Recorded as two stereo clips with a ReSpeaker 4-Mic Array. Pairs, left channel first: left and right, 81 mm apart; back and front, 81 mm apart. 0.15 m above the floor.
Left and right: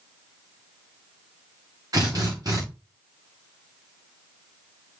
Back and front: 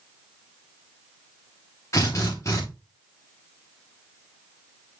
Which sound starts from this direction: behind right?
A drill, at 1.9 s.